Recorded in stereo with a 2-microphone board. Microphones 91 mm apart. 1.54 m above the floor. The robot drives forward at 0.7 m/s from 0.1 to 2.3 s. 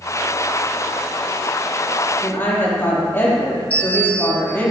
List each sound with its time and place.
2.2 s a woman speaking: 25° left (ahead or behind), 3.5 m
3.7 s a bell: 15° left (ahead or behind), 3.5 m